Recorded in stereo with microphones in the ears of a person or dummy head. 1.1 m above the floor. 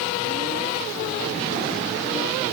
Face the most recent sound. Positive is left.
No sound to turn to.